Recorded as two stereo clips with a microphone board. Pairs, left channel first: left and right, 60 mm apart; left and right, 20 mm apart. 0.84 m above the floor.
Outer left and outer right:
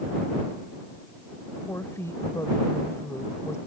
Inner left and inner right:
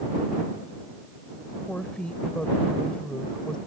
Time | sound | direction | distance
1.7 | a woman speaking | 50° left (ahead or behind) | ?